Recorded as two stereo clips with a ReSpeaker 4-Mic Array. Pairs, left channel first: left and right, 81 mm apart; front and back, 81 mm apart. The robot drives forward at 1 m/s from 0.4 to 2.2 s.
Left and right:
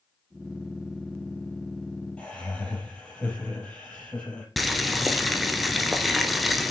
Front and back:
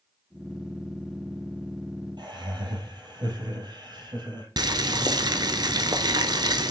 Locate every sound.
2.2 s laughter: 165° left, 4 m
4.6 s boiling: straight behind, 0.8 m